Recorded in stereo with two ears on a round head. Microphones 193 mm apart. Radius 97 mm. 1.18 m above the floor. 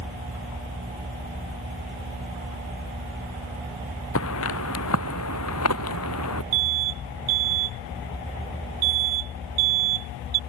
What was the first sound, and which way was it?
Footsteps, 75° left (ahead or behind).